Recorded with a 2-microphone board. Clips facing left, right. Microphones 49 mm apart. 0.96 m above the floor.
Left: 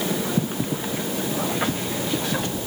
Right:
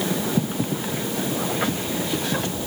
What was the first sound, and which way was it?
Only background noise.